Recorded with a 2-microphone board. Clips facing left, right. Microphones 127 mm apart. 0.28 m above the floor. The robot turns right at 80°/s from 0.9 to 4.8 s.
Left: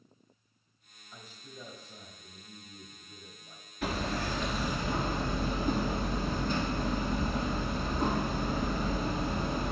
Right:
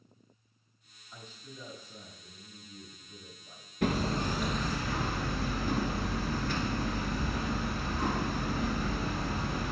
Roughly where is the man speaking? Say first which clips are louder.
Right 1 dB; ahead.